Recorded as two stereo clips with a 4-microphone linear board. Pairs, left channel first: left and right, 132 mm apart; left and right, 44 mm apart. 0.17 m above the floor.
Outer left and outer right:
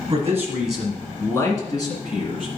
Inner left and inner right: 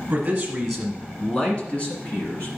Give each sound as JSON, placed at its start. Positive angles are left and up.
{"t": 0.1, "sound": "a man speaking", "side_deg": -30, "distance_m": 1.5}